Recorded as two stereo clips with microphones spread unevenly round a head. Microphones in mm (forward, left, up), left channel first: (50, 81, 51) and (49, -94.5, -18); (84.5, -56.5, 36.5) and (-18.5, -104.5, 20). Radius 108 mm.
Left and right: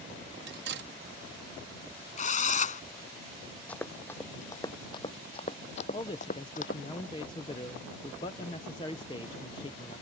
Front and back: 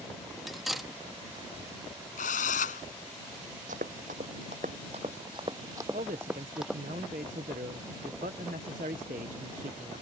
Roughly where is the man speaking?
Behind left.